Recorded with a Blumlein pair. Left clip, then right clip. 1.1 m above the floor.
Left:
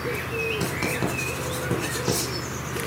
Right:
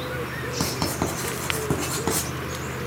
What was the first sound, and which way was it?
Writing, 35° right.